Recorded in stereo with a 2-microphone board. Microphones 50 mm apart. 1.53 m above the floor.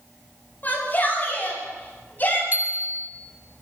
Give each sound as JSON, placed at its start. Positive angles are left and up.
{"t": 0.6, "sound": "a shout", "side_deg": 40, "distance_m": 9.0}
{"t": 2.5, "sound": "a bicycle bell", "side_deg": -40, "distance_m": 2.5}